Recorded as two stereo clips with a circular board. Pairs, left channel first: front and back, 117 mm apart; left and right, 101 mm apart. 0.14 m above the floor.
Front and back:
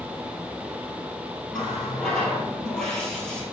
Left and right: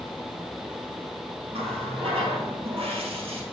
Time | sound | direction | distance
1.5 | a running tap | 85° right | 2.5 m